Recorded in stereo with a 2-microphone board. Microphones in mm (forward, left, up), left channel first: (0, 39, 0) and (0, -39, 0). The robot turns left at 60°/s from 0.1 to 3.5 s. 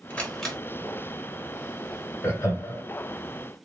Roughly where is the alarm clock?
I don't hear an alarm clock.